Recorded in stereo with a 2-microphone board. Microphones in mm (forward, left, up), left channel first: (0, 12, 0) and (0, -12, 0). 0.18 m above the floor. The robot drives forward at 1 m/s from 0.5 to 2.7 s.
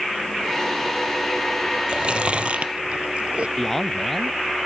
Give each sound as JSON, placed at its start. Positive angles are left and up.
{"t": 1.9, "sound": "chewing", "side_deg": -45}
{"t": 3.6, "sound": "a man speaking", "side_deg": 15}